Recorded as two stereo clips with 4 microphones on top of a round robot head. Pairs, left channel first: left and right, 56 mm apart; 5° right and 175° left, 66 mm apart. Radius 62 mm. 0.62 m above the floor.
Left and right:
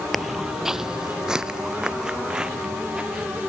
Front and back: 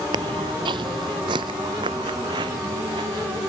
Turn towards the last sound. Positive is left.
turn(degrees=-165)